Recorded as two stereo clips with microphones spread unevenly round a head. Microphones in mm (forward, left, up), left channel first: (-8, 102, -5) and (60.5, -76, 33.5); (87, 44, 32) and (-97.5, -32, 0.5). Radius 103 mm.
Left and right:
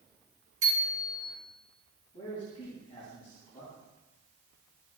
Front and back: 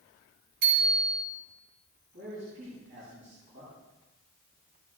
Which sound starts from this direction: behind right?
A bicycle bell, at 0.6 s.